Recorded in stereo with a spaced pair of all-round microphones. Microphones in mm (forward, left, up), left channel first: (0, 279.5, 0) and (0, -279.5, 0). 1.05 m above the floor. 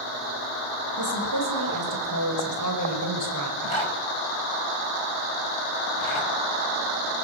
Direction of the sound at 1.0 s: 35° right (ahead or behind).